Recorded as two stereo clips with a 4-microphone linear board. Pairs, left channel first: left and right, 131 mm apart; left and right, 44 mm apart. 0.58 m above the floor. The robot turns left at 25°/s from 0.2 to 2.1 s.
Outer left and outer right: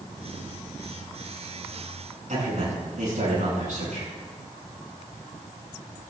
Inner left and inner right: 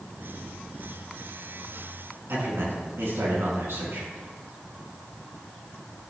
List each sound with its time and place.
2.3 s a man speaking: 70° right (ahead or behind), 5.5 m